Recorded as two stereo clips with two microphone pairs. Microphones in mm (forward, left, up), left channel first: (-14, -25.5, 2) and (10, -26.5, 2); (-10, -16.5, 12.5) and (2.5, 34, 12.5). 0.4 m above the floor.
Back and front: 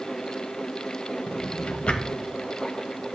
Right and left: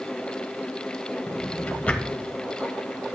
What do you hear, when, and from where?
1.3 s a drawer: 165° right, 1.2 m